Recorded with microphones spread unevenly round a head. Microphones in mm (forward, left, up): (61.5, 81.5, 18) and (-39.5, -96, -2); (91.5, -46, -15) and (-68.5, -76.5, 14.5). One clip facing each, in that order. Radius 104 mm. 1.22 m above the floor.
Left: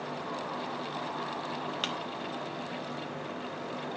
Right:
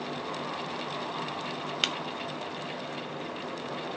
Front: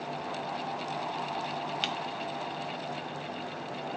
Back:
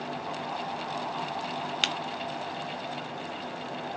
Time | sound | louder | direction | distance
1.8 | breaking glass | right 1 dB, back 1 dB | straight behind | 0.7 m